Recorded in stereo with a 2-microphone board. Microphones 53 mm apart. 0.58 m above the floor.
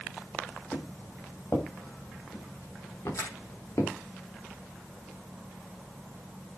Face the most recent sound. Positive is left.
turn(degrees=70)  # may be behind; listen again after turning